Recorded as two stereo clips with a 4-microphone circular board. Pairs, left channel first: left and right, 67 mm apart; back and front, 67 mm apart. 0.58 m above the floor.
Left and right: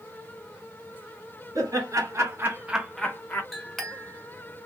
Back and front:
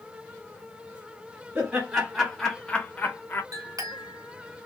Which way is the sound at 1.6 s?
75° right.